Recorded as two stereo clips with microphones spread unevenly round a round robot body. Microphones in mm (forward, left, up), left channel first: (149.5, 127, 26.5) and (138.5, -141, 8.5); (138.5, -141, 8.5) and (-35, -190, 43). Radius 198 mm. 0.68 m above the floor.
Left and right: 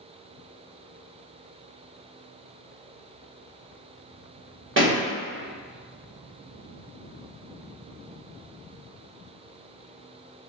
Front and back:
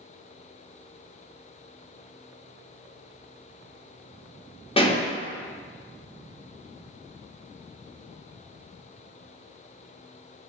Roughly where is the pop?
Ahead right.